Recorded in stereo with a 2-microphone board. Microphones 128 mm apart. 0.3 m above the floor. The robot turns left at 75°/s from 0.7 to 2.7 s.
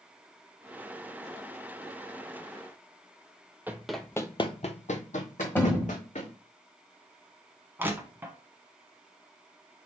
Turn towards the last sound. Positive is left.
turn(degrees=-15)  # may be behind; listen again after turning